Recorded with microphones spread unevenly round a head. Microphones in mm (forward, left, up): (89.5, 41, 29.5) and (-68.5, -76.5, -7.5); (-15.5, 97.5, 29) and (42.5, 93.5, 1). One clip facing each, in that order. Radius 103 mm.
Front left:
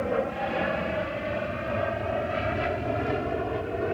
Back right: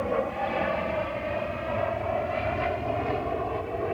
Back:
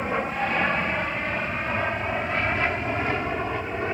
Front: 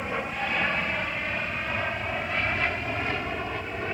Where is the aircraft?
115° left; by 3.9 s 110° left.